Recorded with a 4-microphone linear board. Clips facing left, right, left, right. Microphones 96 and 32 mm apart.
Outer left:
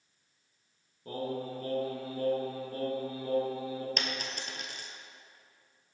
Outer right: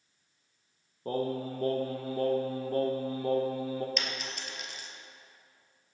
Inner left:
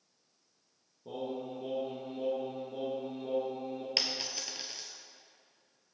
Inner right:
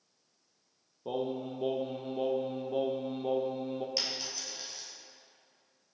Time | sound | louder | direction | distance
1.1 | singing | outer right 4 dB, inner right 4 dB | 45° right (ahead or behind) | 0.9 m
4.0 | a dropped coin | outer left 1 dB, inner left 2 dB | 50° left (ahead or behind) | 0.8 m